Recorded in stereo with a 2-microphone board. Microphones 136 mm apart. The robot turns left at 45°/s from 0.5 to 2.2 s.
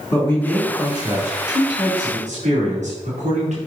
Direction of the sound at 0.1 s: 15° left.